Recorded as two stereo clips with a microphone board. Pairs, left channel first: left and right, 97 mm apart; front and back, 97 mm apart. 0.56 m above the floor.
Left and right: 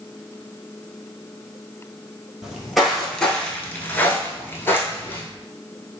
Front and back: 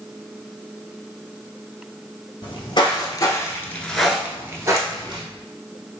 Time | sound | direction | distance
2.4 | footsteps | 5° right | 0.9 m